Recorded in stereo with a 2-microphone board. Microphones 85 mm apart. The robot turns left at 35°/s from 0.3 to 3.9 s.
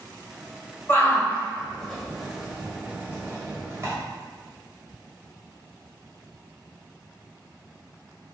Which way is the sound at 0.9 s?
25° left (ahead or behind).